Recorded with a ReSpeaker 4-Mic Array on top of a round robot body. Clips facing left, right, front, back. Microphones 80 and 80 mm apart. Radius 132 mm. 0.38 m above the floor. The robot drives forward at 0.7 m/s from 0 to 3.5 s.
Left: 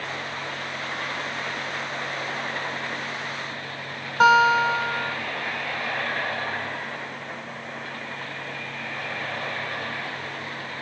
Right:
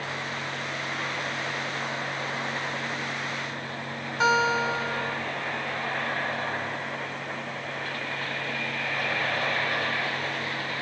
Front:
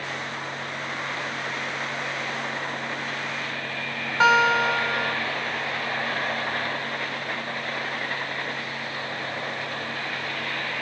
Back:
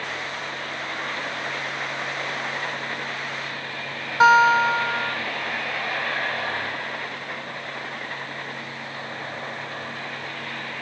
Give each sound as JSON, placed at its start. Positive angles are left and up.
{"t": 4.2, "sound": "a guitar", "azimuth_deg": 110, "distance_m": 3.0}